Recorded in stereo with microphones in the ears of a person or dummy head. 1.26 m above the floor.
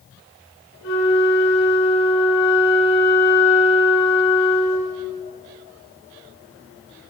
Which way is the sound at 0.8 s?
55° left (ahead or behind).